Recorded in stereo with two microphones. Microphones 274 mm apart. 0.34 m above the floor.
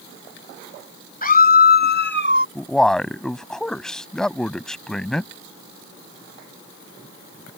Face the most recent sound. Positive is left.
turn(degrees=0)  # may be behind; listen again after turning